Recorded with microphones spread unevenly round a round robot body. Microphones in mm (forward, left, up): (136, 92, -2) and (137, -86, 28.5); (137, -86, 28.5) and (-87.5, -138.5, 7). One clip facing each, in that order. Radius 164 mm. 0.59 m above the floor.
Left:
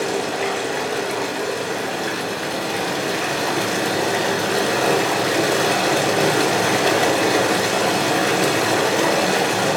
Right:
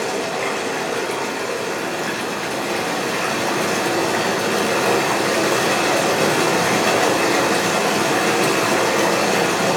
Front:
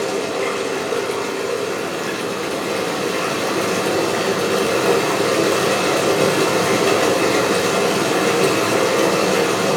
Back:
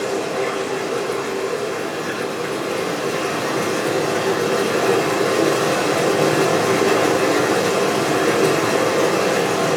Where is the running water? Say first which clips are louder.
Left 1 dB, even; 35° left, 1.1 m.